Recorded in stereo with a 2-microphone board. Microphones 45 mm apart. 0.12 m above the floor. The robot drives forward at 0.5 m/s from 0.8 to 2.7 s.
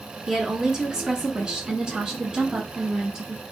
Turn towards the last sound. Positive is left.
turn(degrees=-15)  # may be behind; listen again after turning